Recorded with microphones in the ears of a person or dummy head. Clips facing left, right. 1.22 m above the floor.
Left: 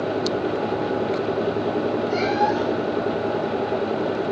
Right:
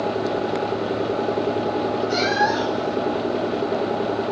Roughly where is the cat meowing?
Centre.